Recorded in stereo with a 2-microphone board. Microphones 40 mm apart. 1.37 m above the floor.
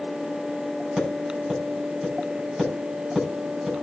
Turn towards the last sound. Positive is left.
turn(degrees=-5)  # may be behind; listen again after turning